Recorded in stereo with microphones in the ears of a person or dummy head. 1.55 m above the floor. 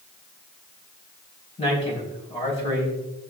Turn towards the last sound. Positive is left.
turn(degrees=30)  # may be behind; listen again after turning